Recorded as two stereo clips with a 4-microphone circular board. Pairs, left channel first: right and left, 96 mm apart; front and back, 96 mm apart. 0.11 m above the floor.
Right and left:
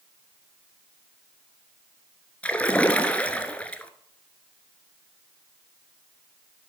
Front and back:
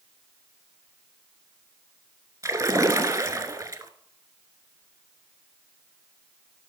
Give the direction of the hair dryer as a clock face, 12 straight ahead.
No hair dryer in this recording.